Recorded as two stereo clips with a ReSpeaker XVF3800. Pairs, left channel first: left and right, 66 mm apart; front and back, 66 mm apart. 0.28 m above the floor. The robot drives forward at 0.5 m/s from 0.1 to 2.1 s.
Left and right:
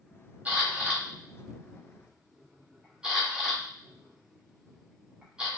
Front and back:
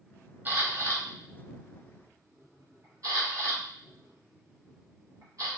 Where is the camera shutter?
140° right, 0.8 m; by 5.5 s 165° right, 1.4 m.